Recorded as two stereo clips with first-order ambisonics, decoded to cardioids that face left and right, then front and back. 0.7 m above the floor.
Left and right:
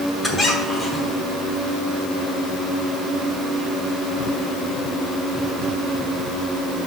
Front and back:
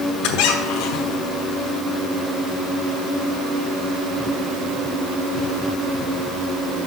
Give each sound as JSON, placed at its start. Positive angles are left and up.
{"t": 0.2, "sound": "a squeak", "azimuth_deg": 10, "distance_m": 1.0}